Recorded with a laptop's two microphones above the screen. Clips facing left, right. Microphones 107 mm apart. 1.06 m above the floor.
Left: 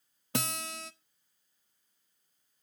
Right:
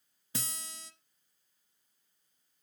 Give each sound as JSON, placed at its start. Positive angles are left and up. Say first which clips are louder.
{"t": 0.3, "sound": "a guitar", "louder": "left 9 dB", "side_deg": 65, "distance_m": 0.6}